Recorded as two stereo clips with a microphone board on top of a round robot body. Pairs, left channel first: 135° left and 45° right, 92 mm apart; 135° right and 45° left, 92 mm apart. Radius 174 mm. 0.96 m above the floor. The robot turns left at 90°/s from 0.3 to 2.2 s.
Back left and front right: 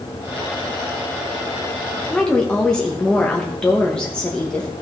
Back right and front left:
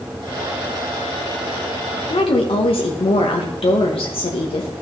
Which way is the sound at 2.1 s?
135° right.